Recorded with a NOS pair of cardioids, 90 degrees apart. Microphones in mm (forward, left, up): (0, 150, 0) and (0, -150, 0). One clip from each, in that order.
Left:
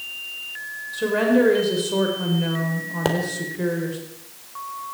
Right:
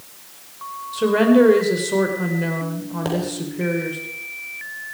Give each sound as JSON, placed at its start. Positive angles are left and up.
{"t": 0.9, "sound": "a woman speaking", "azimuth_deg": -30, "distance_m": 4.5}
{"t": 3.0, "sound": "a pop", "azimuth_deg": 35, "distance_m": 3.5}